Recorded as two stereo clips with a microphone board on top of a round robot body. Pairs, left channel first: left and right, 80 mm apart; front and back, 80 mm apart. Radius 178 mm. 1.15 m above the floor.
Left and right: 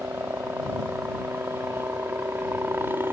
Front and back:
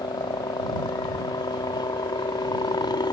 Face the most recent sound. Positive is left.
turn(degrees=-30)